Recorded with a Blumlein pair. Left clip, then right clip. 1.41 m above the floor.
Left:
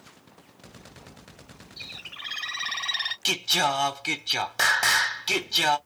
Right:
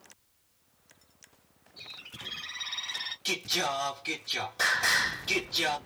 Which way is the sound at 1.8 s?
40° left.